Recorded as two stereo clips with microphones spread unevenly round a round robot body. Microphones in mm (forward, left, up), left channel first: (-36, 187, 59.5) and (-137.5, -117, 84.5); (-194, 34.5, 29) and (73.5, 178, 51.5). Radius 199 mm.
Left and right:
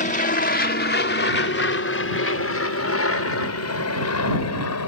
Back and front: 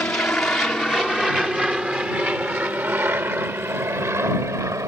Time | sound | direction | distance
0.0 | an aircraft | 125° left | ?